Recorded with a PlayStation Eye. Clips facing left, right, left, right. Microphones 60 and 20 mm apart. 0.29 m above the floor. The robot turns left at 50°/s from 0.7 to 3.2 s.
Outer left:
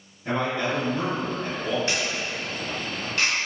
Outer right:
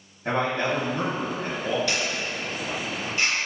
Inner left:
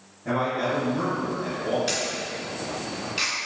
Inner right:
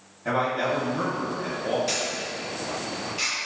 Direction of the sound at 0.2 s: 95° right.